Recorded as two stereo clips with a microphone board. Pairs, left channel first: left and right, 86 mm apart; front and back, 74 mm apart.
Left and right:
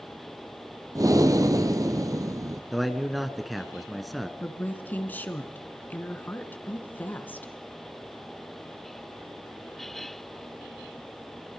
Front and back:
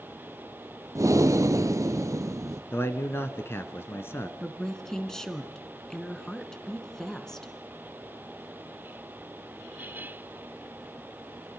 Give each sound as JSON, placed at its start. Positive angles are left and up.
{"t": 0.9, "sound": "breathing", "azimuth_deg": -135, "distance_m": 0.8}
{"t": 2.7, "sound": "a man speaking", "azimuth_deg": 0, "distance_m": 1.3}
{"t": 4.4, "sound": "a woman speaking", "azimuth_deg": 70, "distance_m": 1.7}